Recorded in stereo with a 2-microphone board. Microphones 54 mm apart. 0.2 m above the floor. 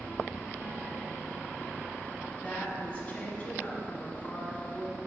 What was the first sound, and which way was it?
A woman speaking, 25° left (ahead or behind).